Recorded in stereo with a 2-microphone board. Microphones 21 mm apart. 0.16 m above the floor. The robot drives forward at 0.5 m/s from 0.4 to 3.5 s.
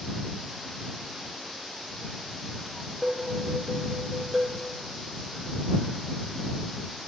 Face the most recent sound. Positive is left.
turn(degrees=0)  # may be behind; listen again after turning